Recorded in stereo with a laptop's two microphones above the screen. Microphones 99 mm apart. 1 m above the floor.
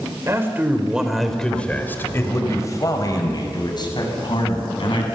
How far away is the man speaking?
About 3 m.